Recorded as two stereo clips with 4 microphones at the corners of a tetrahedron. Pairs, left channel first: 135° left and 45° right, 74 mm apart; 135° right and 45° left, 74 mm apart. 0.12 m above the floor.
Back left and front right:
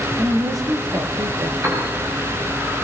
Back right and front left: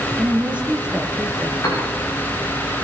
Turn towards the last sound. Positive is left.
turn(degrees=-95)